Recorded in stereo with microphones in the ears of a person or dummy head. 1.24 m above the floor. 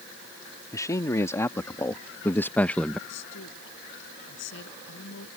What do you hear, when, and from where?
0.7 s a man speaking: 20° left (ahead or behind); by 3.0 s 5° left (ahead or behind)
3.1 s a woman speaking: 70° left (ahead or behind)